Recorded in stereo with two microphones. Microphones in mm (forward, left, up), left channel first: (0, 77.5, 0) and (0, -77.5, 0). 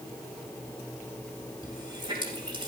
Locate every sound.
1.6 s a running tap: 30° right (ahead or behind), 5 m